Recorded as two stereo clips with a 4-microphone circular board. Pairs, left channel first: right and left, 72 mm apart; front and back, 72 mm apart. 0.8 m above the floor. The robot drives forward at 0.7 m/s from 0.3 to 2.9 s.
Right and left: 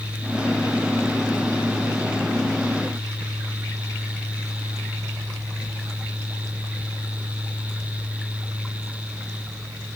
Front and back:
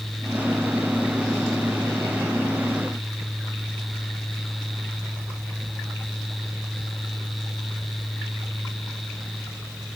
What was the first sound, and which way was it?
Only background noise.